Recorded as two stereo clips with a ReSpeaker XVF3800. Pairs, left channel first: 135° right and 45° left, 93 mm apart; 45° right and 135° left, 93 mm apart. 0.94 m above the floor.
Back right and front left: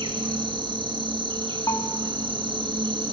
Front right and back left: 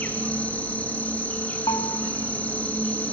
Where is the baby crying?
No baby crying in this recording.